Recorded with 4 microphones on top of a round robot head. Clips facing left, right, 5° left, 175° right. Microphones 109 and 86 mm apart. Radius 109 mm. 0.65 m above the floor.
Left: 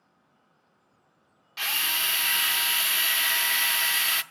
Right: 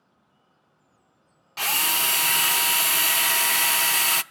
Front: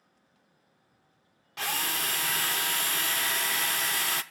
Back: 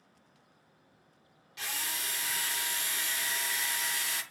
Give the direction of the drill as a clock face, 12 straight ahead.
1 o'clock.